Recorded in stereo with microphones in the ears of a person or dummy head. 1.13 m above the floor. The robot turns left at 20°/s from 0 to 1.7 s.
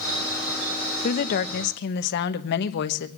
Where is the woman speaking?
45° left (ahead or behind), 1.1 m; by 3.1 s 55° left (ahead or behind), 1.1 m.